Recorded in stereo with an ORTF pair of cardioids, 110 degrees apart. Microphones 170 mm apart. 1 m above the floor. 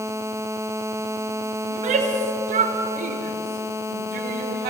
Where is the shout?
45° right, 4.5 m; by 4.7 s 70° right, 4.5 m.